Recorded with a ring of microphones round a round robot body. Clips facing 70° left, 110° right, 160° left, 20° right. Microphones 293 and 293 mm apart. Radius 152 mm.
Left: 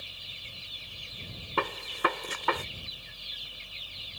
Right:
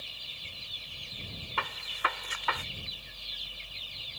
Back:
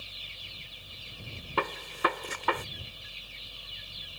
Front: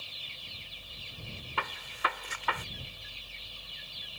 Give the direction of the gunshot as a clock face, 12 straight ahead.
8 o'clock.